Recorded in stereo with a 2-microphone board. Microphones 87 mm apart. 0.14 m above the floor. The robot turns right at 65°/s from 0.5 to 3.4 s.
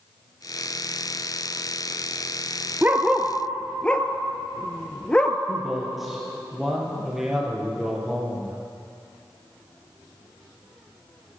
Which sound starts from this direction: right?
A dog barking, at 2.8 s.